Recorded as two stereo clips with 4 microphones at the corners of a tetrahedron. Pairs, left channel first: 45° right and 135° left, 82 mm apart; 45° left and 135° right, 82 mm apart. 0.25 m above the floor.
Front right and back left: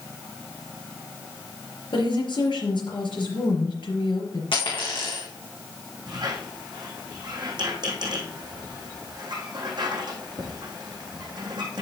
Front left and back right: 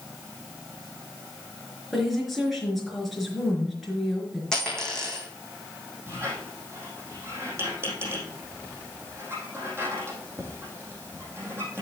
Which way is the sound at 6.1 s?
165° left.